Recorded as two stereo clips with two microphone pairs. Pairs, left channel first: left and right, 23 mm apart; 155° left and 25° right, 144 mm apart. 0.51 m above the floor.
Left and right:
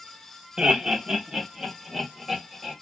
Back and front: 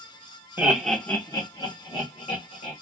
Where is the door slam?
No door slam in this recording.